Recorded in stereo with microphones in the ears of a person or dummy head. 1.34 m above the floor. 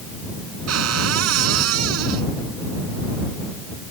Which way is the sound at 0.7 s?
90° right.